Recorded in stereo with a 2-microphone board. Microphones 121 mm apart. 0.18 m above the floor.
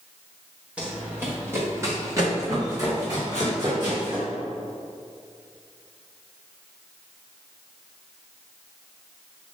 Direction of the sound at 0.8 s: 10° right (ahead or behind).